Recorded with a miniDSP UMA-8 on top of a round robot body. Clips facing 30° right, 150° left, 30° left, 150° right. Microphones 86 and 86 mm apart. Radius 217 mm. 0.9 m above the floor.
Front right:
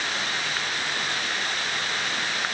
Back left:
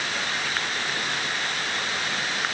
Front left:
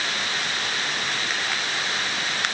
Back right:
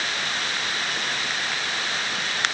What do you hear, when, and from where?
Only background noise.